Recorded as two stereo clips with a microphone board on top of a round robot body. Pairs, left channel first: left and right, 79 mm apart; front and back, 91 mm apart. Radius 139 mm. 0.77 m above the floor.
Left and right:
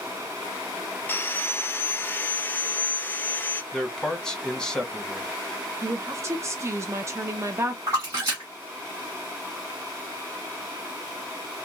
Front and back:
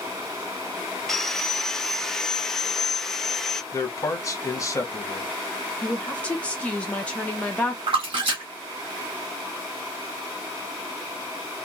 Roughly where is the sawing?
Left.